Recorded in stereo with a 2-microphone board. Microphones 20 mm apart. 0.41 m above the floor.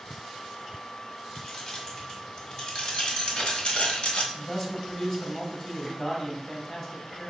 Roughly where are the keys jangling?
Left.